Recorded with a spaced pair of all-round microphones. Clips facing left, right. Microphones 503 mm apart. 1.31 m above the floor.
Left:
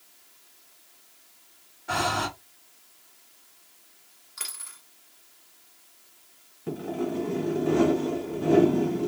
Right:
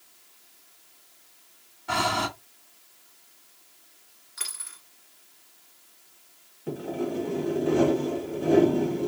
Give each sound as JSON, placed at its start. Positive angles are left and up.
{"t": 1.9, "sound": "breathing", "side_deg": -20, "distance_m": 1.5}
{"t": 4.4, "sound": "a dropped coin", "side_deg": -15, "distance_m": 2.0}
{"t": 6.7, "sound": "sawing", "side_deg": 15, "distance_m": 1.3}